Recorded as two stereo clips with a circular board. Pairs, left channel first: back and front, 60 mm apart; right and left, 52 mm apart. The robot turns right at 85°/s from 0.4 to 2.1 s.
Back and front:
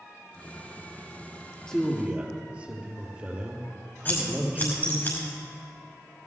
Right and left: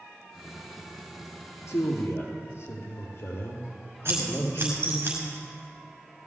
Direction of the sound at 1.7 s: 105° right.